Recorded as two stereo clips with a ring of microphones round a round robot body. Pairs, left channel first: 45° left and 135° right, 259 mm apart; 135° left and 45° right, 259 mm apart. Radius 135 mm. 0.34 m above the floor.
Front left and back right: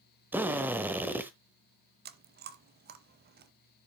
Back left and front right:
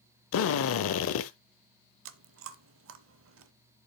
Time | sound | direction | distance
0.3 | a drill | 145° left | 0.9 m
2.0 | chewing | 80° right | 0.7 m